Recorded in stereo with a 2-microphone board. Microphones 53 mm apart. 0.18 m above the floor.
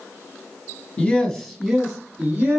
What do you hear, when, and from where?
1.0 s a man speaking: 25° left (ahead or behind), 1.0 m; by 2.6 s 25° right (ahead or behind), 1.7 m